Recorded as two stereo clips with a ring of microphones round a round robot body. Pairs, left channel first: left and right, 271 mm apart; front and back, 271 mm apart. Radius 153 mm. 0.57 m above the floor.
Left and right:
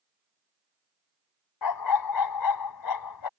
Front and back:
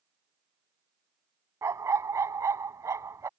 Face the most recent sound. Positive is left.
turn(degrees=100)